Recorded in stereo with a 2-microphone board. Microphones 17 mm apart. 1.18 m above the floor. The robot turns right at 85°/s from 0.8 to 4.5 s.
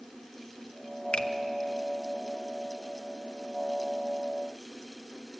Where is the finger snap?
70° left (ahead or behind), 1.1 m; by 1.3 s 60° left (ahead or behind), 1.1 m.